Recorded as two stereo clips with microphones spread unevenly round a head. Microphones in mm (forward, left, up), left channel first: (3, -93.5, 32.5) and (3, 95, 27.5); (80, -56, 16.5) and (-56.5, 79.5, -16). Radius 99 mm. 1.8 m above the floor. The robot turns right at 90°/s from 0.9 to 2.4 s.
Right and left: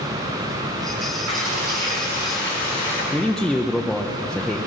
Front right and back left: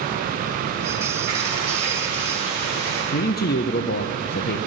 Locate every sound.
1.3 s frying: 90° left, 7.5 m; by 3.0 s 170° right, 7.5 m
3.1 s a man speaking: straight ahead, 0.7 m